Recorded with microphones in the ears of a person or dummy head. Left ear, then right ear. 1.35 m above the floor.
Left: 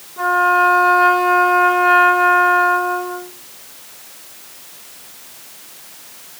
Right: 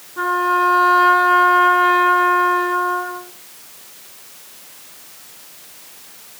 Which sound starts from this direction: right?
A trumpet, at 0.2 s.